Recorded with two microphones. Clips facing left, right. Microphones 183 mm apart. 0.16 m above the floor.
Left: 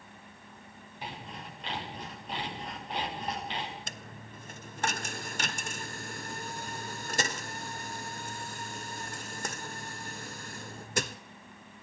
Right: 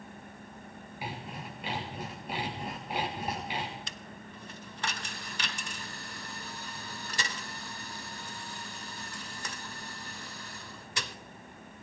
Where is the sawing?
10° right (ahead or behind), 7.5 m.